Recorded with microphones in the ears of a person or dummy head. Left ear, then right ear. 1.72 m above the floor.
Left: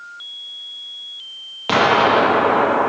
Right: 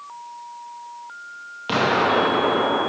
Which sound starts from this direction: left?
An explosion, at 1.7 s.